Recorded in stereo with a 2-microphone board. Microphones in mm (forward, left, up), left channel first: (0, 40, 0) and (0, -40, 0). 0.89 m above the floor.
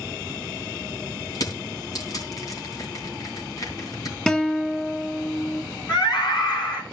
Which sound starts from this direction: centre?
A guitar, at 4.3 s.